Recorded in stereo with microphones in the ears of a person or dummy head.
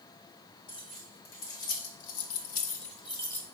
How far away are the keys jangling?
About 1.4 m.